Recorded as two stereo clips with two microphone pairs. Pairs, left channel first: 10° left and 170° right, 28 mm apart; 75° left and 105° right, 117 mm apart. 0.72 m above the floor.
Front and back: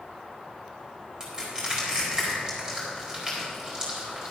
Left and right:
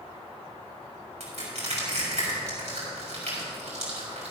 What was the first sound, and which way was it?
Crushing, 105° right.